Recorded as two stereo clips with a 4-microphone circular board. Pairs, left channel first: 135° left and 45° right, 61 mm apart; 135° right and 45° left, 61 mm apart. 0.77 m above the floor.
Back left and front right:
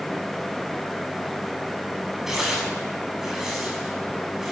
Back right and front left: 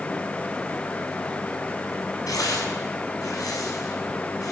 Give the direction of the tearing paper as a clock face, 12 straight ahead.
4 o'clock.